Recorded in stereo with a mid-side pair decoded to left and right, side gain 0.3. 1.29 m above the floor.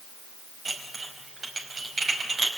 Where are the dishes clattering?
55° right, 5 m.